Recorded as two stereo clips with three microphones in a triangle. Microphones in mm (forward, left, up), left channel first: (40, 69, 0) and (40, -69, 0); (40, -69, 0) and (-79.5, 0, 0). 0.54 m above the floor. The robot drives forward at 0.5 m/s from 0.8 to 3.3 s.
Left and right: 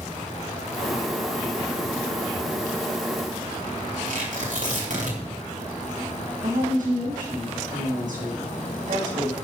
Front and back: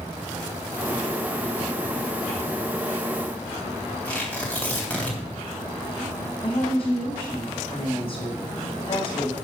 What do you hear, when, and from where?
4.0 s tearing paper: 110° right, 3.5 m
6.4 s a woman speaking: 75° right, 3 m